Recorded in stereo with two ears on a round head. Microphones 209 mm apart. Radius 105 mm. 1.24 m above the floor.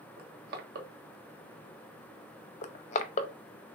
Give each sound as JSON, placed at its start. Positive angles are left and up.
{"t": 0.2, "sound": "crushing", "side_deg": -50, "distance_m": 1.2}
{"t": 2.6, "sound": "crushing", "side_deg": 30, "distance_m": 0.5}